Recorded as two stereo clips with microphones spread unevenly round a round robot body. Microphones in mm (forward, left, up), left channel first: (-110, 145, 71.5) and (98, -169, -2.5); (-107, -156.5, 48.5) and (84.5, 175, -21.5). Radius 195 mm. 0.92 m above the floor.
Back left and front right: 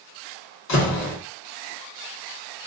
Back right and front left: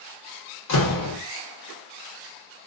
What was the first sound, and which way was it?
A door slam, 175° right.